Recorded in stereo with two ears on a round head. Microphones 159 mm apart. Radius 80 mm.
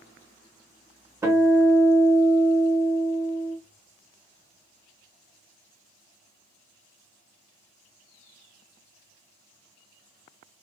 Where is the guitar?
15° right (ahead or behind), 0.9 m.